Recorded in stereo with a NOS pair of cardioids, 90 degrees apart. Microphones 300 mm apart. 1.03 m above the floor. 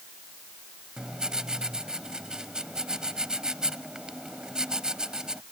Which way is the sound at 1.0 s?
Straight ahead.